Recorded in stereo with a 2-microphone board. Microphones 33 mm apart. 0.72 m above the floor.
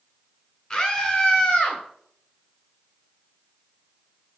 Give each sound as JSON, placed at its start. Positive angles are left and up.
{"t": 0.7, "sound": "a scream", "side_deg": 30, "distance_m": 3.5}